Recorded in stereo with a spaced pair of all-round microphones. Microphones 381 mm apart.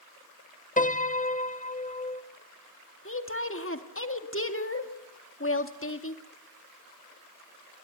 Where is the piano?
20° left (ahead or behind), 0.8 m.